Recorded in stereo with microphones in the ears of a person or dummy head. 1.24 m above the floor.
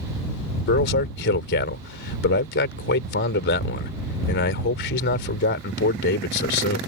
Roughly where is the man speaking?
Left.